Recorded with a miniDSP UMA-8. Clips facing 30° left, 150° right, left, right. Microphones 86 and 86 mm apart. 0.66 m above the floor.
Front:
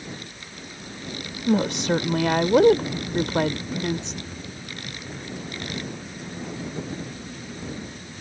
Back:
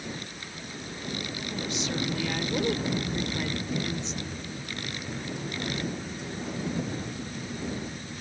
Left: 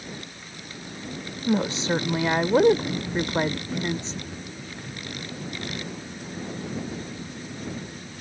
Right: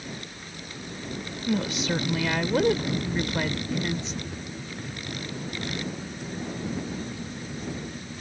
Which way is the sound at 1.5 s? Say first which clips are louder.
Front 13 dB, left 3 dB; 35° left.